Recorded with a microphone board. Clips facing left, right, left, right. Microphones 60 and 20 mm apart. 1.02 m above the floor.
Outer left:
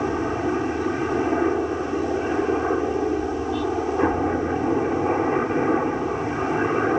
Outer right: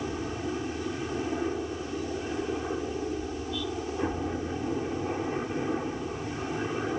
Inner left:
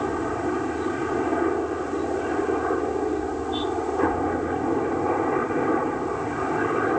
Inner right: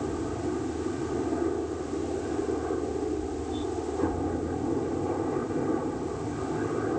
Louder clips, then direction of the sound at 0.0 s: Outer left 10 dB, inner left 5 dB; 50° left (ahead or behind).